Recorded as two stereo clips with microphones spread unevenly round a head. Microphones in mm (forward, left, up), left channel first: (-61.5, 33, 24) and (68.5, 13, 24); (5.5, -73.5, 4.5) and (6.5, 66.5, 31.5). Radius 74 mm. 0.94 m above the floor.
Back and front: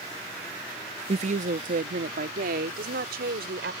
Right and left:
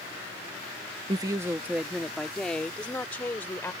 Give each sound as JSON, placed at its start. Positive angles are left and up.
{"t": 1.1, "sound": "a woman speaking", "azimuth_deg": 25}